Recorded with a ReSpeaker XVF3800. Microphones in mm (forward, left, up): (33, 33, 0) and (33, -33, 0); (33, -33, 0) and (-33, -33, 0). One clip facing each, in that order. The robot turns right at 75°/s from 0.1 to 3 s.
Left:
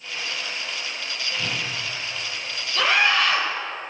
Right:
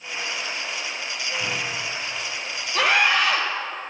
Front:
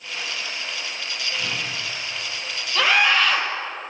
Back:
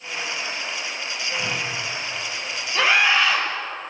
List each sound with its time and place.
1.4 s a whoosh: 105° left, 3.5 m; by 1.6 s 125° left, 3.5 m
2.8 s a scream: 120° right, 4 m; by 3.5 s 100° right, 4 m